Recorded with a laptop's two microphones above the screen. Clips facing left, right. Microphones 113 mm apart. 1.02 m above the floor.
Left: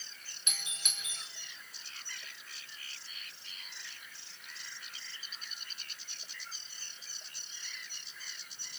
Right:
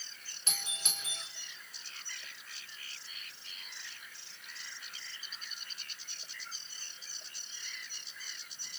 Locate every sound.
0.5 s a doorbell: 35° right (ahead or behind), 4.5 m